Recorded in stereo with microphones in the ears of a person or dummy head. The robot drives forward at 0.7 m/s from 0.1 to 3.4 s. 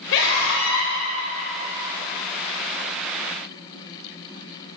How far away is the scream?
About 0.9 m.